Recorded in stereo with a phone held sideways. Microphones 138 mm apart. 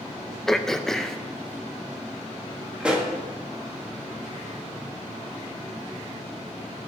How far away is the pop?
About 1.8 m.